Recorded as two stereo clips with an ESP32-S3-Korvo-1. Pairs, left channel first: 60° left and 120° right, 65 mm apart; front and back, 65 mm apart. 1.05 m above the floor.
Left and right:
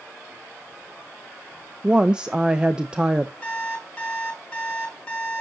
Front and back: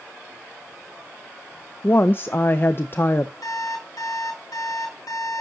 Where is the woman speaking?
45° right, 0.6 m.